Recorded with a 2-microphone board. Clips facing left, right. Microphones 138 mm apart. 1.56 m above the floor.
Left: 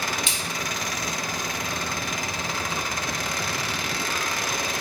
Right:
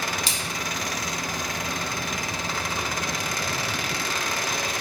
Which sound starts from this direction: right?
A splash, at 0.3 s.